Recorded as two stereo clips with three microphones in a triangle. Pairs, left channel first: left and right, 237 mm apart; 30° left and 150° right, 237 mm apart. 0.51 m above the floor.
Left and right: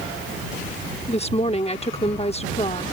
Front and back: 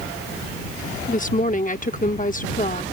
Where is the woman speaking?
50° left.